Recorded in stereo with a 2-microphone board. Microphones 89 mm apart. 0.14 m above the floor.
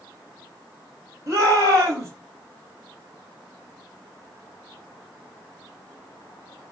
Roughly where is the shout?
Right.